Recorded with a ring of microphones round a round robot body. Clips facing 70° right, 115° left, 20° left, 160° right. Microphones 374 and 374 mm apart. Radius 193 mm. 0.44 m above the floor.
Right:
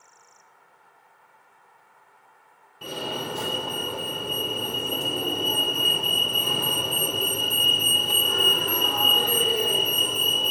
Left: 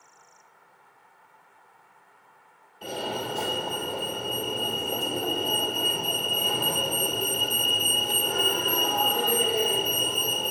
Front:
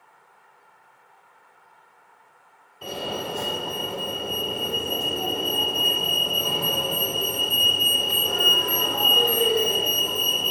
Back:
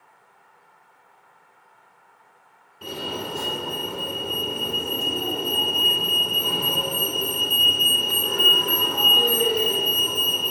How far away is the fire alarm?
About 2 m.